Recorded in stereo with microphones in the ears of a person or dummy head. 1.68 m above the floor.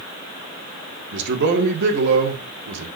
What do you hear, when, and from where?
1.1 s a man speaking: 60° right (ahead or behind), 2 m